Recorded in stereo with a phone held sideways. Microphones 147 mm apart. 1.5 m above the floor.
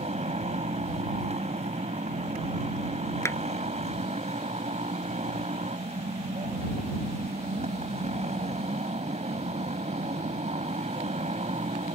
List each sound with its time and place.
0.0 s a motorcycle: 50° right (ahead or behind)
3.2 s a clap: 20° left (ahead or behind)